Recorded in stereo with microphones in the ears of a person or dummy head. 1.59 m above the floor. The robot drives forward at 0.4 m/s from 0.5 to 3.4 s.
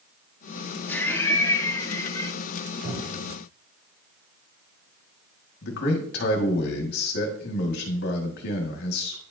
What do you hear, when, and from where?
0.9 s laughter: 15° left (ahead or behind), 1.4 m; by 2.4 s 20° left (ahead or behind), 0.9 m
2.8 s a cupboard door: 65° right (ahead or behind), 4 m
5.6 s a man speaking: 65° left (ahead or behind), 1.6 m